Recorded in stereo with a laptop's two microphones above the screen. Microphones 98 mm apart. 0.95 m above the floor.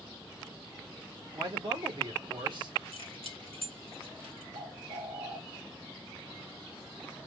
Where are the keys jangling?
70° right (ahead or behind), 4 m.